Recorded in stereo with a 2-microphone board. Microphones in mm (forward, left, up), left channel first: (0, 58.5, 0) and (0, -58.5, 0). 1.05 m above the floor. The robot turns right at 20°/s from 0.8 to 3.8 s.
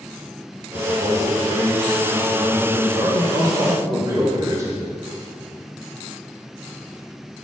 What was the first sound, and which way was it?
A man speaking, 90° right.